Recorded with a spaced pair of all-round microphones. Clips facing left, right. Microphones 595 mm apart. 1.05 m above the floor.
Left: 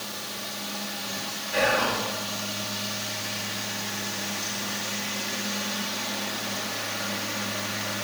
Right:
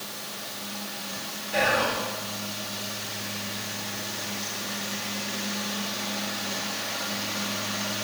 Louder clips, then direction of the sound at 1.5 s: Left 1 dB; 65° right (ahead or behind).